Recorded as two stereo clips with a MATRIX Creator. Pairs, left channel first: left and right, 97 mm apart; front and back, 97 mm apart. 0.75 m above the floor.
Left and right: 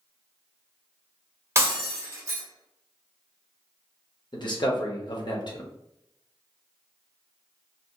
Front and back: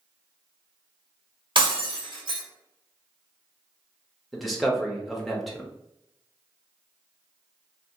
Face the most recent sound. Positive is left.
turn(degrees=90)